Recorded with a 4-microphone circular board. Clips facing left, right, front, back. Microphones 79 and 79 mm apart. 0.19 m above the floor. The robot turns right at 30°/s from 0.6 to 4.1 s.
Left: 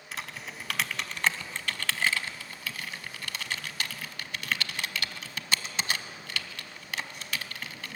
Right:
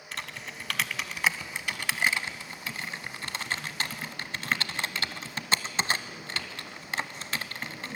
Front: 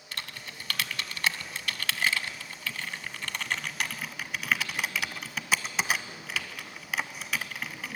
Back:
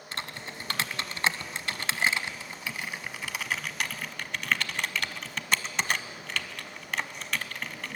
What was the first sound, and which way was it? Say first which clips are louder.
Typing on a keyboard: even, back 3 dB; 175° left.